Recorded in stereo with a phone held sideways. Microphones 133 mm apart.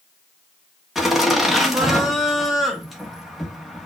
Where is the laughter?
Centre (ahead or behind), 1.7 m.